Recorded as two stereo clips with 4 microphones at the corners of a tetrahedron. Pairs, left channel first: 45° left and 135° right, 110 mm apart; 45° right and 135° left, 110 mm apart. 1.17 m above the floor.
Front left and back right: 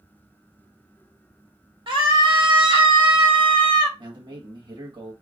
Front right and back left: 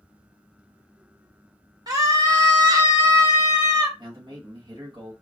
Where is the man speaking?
Straight behind, 1.4 m.